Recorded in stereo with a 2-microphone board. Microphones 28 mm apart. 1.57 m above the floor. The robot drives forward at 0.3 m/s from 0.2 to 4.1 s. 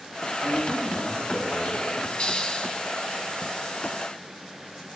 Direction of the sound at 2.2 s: 30° left (ahead or behind).